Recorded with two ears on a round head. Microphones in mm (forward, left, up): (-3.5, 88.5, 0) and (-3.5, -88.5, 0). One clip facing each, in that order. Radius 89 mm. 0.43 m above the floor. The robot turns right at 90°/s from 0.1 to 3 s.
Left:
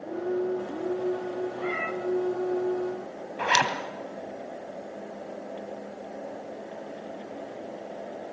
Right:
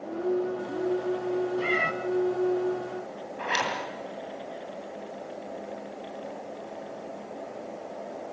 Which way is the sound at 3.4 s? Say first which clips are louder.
Left 4 dB; 65° left (ahead or behind).